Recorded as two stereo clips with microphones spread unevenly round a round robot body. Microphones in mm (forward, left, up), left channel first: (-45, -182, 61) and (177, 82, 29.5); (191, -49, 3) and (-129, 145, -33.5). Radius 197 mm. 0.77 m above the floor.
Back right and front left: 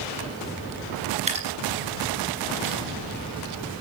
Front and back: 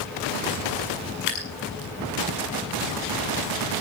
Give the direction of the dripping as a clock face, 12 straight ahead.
1 o'clock.